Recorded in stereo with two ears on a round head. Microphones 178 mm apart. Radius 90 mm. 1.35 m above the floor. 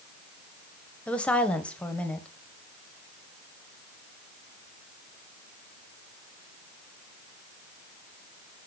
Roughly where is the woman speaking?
Centre.